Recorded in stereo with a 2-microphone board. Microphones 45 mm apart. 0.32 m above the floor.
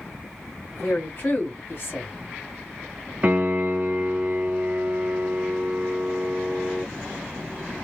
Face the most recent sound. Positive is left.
turn(degrees=-35)  # may be behind; listen again after turning